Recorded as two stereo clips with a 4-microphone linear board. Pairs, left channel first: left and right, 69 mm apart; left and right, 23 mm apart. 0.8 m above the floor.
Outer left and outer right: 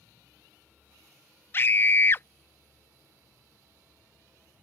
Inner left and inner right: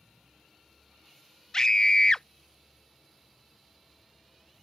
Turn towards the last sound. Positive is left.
turn(degrees=35)  # may be behind; listen again after turning